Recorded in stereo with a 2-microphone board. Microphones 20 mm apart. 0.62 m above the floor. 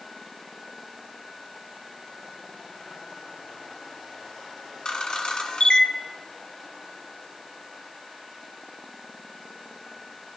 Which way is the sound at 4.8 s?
65° left (ahead or behind).